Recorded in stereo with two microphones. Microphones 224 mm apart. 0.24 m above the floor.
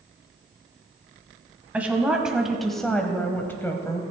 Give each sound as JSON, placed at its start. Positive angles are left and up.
{"t": 1.7, "sound": "a woman speaking", "side_deg": -5, "distance_m": 1.4}